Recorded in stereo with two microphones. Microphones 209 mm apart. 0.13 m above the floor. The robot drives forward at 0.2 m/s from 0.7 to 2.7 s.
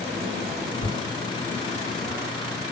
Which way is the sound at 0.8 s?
55° left (ahead or behind).